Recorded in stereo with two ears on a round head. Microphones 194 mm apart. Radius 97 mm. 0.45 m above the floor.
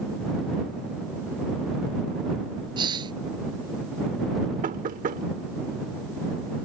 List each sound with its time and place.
2.8 s a hiss: 20° right (ahead or behind)
4.6 s knocking: 40° right (ahead or behind)